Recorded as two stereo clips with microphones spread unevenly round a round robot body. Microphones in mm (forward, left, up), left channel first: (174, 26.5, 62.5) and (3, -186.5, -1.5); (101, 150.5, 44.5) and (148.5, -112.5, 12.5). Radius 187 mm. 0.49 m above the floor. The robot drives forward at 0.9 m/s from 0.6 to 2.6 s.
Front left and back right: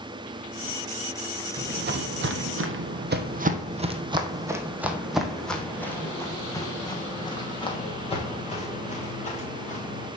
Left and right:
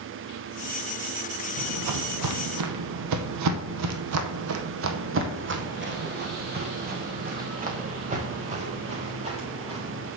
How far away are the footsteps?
About 1.6 m.